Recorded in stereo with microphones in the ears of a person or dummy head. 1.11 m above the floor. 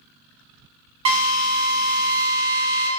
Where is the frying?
I don't hear frying.